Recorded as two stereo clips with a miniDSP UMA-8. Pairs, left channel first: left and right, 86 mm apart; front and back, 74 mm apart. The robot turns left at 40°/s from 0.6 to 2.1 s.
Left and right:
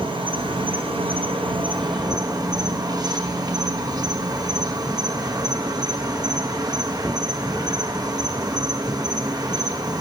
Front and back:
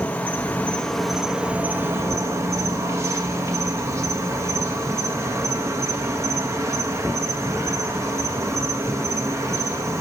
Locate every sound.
0.0 s an insect: 70° right, 1.0 m; by 10.0 s 130° right, 1.0 m